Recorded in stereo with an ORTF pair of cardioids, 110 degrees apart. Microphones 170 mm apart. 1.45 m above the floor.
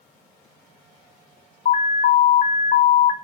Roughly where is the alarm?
Ahead left.